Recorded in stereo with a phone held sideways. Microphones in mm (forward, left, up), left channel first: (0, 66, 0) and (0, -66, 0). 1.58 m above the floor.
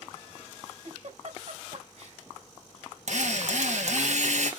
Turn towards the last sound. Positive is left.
turn(degrees=-60)  # may be behind; listen again after turning